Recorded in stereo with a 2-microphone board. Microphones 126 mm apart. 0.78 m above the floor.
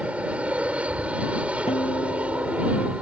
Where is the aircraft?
10° right (ahead or behind).